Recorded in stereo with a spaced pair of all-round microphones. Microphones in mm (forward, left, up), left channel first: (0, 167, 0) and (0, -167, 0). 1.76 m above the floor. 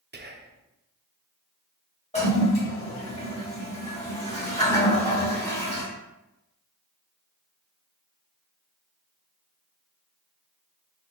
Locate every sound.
0.1 s whispering: 30° right (ahead or behind), 0.6 m
2.1 s a toilet flushing: 20° left (ahead or behind), 1.6 m